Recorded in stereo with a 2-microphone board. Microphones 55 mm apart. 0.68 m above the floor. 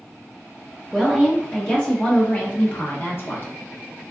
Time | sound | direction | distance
0.9 | a woman speaking | 5° left (ahead or behind) | 1.2 m